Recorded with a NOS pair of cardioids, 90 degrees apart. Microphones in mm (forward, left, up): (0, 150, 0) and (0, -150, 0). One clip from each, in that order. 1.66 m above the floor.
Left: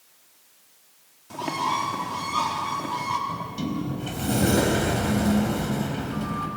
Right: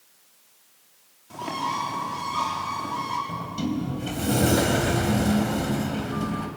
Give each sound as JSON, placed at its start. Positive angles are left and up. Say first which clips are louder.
{"t": 1.3, "sound": "a bird", "louder": "left 2 dB", "azimuth_deg": 20, "distance_m": 4.5}
{"t": 3.3, "sound": "a sliding door", "louder": "right 1 dB", "azimuth_deg": -15, "distance_m": 4.0}